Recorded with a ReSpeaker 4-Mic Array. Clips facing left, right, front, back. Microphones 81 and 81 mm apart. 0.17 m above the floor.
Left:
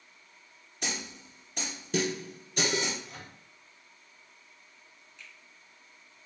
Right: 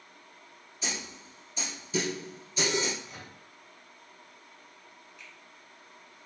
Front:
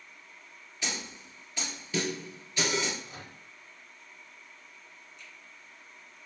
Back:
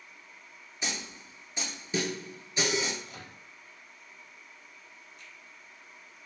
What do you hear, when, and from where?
0.8 s a snare drum: 110° left, 1.4 m
3.0 s a microwave: 10° right, 1.3 m
5.2 s a finger snap: 170° right, 1.9 m